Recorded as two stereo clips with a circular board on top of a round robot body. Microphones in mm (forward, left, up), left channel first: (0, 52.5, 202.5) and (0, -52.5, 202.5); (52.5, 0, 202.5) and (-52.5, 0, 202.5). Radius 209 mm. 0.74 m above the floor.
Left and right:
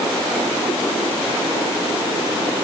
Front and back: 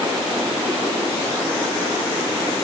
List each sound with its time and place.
Only background noise.